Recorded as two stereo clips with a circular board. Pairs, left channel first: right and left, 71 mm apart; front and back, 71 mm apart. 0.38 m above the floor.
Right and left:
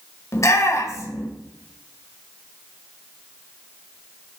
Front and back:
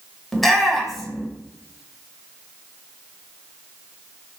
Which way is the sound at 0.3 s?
85° right.